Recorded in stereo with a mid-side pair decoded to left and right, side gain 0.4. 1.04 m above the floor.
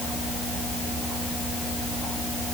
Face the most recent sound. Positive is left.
No sound to turn to.